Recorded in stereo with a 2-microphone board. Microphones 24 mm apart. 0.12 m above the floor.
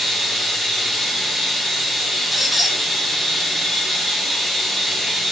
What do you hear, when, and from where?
0.0 s running water: 10° left (ahead or behind), 4.5 m
2.3 s a squeak: 5° right (ahead or behind), 1.4 m